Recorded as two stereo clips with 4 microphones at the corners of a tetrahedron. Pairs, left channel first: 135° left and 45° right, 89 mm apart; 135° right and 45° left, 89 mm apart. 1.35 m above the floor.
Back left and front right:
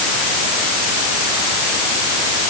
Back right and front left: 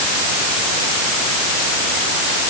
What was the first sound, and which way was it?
Only background noise.